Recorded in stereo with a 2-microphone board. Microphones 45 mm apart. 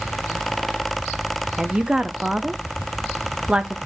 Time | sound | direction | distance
1.6 | a woman speaking | 20° right (ahead or behind) | 0.5 m